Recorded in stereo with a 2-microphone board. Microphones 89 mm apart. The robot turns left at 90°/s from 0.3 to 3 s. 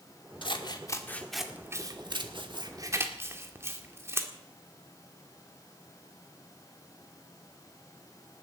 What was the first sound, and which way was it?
Scissors, 60° left (ahead or behind).